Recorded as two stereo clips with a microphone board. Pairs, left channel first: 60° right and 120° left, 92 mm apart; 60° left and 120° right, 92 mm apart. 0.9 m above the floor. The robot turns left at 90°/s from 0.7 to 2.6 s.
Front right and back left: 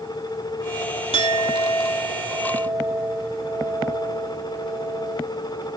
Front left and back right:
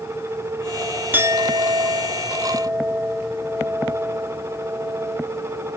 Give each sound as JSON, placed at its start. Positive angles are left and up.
{"t": 1.1, "sound": "a clink", "azimuth_deg": -55}